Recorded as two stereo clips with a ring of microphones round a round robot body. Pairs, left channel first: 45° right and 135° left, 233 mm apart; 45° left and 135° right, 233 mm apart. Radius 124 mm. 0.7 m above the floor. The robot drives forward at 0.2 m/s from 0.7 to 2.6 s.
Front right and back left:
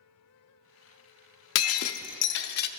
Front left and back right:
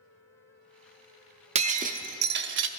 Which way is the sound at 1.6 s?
70° right.